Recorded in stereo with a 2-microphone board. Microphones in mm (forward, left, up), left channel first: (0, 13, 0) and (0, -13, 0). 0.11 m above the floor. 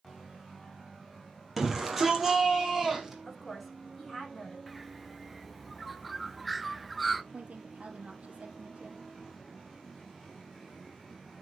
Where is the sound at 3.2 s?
5° right (ahead or behind), 7 m.